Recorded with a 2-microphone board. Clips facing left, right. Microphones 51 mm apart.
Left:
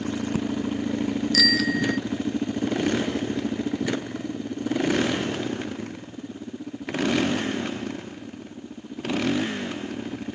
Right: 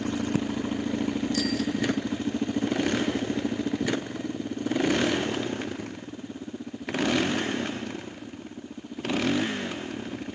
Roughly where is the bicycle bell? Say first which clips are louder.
Left 5 dB; left.